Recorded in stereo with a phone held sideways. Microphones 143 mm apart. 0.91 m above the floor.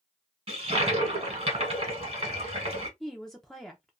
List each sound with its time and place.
0.5 s a toilet flushing: 45° right (ahead or behind), 1.4 m
3.0 s a woman speaking: 5° left (ahead or behind), 0.6 m